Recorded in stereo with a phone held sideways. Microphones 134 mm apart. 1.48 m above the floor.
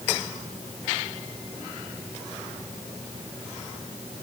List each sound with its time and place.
Only background noise.